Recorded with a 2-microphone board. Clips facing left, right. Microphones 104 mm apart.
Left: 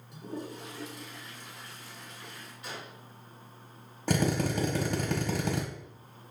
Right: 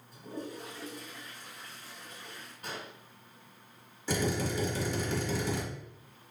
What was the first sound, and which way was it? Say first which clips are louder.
A toilet flushing: left 2 dB; 85° left.